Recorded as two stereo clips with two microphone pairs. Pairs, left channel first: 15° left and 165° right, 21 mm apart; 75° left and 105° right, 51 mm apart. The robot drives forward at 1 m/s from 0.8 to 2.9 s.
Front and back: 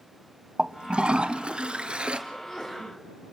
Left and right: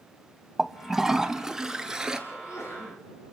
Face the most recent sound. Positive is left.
turn(degrees=80)